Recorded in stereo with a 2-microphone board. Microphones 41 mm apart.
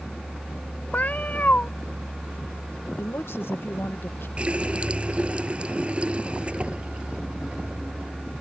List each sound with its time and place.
0.9 s a cat meowing: 40° left (ahead or behind)
3.0 s a woman speaking: 70° left (ahead or behind)
4.4 s a running tap: 30° right (ahead or behind)